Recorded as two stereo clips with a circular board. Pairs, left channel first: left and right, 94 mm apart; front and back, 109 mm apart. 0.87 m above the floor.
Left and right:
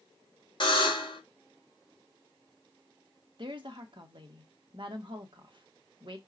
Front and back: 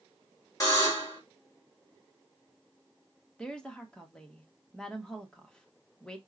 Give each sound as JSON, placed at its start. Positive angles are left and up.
{"t": 0.6, "sound": "a buzzer", "azimuth_deg": 55, "distance_m": 3.0}
{"t": 3.4, "sound": "a woman speaking", "azimuth_deg": -80, "distance_m": 1.2}